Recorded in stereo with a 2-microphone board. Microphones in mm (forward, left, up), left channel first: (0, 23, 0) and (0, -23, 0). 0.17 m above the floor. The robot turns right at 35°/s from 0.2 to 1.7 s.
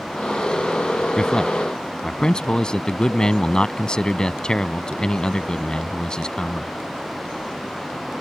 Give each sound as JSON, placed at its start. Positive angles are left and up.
{"t": 1.2, "sound": "a man speaking", "side_deg": 20}